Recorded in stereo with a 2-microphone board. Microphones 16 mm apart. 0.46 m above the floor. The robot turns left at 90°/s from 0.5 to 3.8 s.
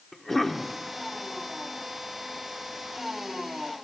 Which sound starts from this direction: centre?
A cough, at 0.1 s.